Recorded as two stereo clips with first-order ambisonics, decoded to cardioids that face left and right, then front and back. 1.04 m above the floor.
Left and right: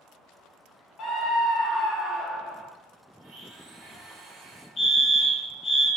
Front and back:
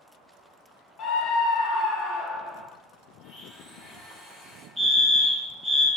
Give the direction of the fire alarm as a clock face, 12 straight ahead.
8 o'clock.